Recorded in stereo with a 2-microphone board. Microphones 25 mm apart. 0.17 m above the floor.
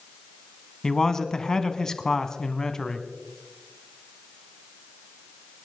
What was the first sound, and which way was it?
A man speaking, 25° left (ahead or behind).